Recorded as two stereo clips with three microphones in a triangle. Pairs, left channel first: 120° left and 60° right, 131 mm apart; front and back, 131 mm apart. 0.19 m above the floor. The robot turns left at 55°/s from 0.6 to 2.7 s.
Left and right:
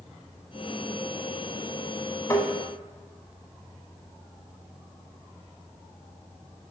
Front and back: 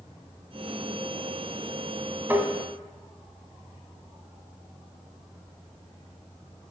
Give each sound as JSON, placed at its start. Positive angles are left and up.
{"t": 2.3, "sound": "tapping", "azimuth_deg": 135, "distance_m": 0.6}